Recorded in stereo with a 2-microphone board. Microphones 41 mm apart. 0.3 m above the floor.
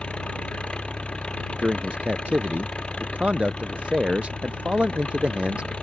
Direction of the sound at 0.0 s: 30° left (ahead or behind).